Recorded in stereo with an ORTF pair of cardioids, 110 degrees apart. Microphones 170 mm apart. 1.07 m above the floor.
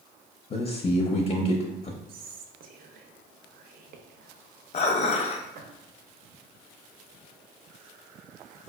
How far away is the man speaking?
About 0.5 m.